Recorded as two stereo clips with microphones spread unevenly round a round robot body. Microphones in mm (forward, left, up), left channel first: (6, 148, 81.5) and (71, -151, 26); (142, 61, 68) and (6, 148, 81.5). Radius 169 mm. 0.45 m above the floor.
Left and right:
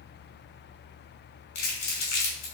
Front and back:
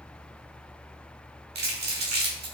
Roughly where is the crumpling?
Behind left.